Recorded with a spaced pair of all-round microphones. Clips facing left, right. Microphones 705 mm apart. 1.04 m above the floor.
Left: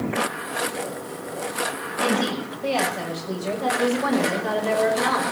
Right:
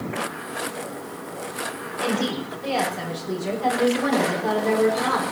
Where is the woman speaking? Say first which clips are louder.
Left 1 dB; 40° right (ahead or behind), 6.5 m; by 5.2 s 70° right (ahead or behind), 4.5 m.